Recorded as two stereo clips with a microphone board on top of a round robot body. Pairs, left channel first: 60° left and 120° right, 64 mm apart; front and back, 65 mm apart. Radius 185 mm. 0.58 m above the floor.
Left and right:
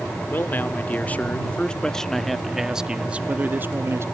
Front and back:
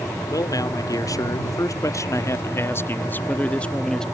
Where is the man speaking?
5° left; by 4.1 s 80° right.